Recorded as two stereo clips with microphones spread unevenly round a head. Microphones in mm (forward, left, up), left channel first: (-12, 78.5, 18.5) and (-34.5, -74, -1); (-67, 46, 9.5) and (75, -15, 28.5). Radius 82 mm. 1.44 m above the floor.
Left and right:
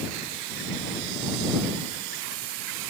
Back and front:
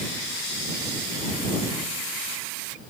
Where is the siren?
I don't hear a siren.